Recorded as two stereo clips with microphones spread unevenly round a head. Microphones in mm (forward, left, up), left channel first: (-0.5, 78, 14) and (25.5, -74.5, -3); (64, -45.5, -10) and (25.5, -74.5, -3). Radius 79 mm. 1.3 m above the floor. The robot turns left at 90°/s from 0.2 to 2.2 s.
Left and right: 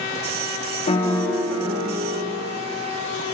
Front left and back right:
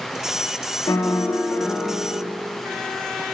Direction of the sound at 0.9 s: 50° left.